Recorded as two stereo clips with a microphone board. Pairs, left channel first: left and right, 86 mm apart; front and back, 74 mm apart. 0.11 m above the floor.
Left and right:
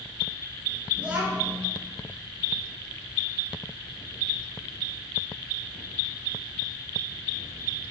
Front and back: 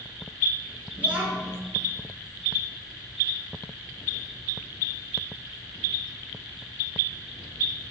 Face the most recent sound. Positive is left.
turn(degrees=-145)